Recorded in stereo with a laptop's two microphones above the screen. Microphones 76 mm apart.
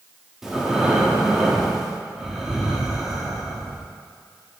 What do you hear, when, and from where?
0.4 s breathing: 5° right (ahead or behind), 0.8 m